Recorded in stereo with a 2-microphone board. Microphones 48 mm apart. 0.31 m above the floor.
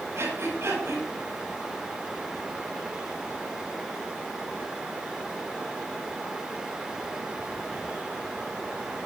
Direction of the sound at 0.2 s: 70° right (ahead or behind).